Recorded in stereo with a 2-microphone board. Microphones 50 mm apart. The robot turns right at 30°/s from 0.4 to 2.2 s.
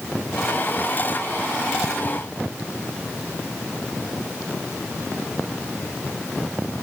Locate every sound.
Only background noise.